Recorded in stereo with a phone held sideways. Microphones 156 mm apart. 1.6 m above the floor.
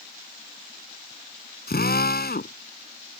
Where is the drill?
85° left.